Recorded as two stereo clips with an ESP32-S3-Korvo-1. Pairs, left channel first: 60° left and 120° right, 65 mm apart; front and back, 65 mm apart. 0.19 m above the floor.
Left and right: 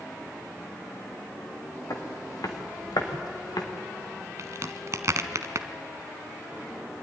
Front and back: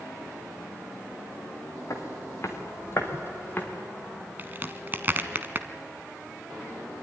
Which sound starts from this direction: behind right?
A crack, at 4.4 s.